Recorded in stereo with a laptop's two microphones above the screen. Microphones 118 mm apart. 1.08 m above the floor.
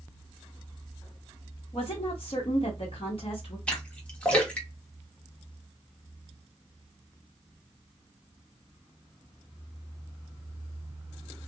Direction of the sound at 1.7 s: 50° left (ahead or behind).